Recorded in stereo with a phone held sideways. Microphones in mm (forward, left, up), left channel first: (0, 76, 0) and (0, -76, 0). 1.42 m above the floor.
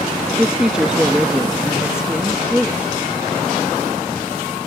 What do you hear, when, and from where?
0.4 s a woman speaking: 5° right (ahead or behind)